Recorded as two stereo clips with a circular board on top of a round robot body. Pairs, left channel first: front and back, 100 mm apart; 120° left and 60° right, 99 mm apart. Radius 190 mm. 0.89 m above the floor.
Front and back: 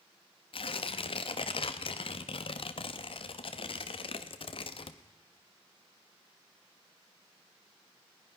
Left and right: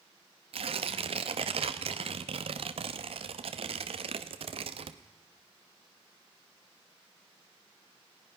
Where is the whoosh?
I don't hear a whoosh.